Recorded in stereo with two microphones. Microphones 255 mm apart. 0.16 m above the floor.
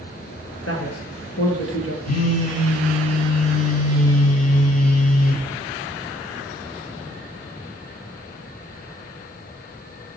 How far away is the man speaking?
About 2.5 m.